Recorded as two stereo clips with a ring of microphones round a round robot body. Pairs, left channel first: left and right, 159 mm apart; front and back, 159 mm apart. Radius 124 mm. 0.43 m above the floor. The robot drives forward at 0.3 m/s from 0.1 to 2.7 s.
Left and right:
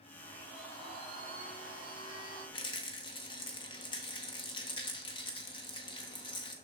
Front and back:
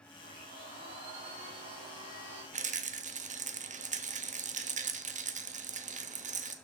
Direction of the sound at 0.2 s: 160° right.